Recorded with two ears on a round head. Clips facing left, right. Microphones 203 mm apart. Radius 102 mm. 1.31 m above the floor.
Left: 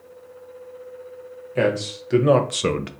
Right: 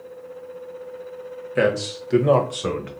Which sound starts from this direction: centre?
A man speaking, at 1.6 s.